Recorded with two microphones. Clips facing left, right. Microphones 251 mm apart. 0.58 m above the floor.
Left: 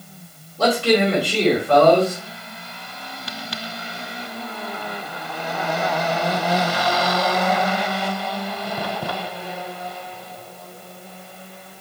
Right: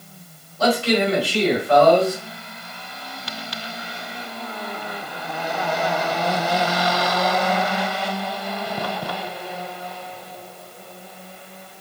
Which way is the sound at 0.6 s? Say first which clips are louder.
Left 2 dB; 60° left (ahead or behind).